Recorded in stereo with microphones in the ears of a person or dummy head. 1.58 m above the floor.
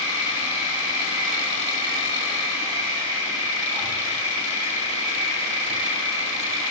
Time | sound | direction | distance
0.0 | an insect | 5° right (ahead or behind) | 4 m